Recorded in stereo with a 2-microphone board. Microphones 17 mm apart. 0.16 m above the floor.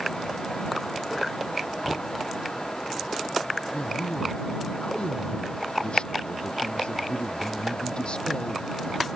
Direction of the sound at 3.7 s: 80° left.